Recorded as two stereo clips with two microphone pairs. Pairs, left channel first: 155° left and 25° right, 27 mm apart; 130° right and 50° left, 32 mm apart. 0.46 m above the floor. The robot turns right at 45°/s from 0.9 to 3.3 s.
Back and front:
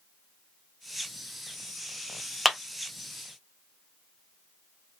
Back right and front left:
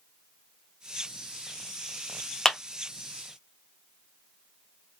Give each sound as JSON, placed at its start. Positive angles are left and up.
{"t": 2.5, "sound": "a clap", "azimuth_deg": -95, "distance_m": 0.6}